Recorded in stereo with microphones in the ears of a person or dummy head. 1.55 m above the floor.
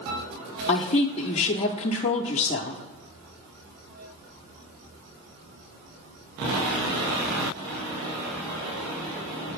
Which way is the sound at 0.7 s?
35° left (ahead or behind).